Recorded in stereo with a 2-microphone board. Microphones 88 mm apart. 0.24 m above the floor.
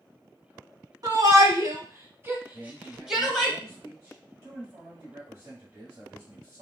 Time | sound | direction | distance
1.0 | a shout | 50° right (ahead or behind) | 1.4 m
2.5 | a man speaking | 30° right (ahead or behind) | 1.7 m